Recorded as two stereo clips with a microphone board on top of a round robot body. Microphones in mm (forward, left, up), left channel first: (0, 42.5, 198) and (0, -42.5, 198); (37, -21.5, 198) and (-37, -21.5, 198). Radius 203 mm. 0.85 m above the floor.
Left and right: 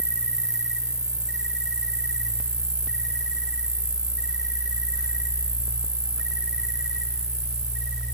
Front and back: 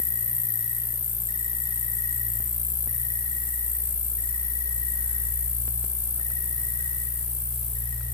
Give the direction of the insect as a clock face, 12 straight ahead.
12 o'clock.